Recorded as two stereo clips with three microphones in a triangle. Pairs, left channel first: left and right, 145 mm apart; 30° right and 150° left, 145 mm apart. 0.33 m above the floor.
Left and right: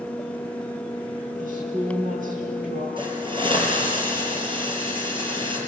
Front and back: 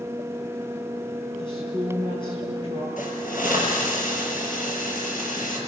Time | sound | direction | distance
1.4 | a woman speaking | 85° right | 9.5 m
3.0 | a hiss | 35° right | 5 m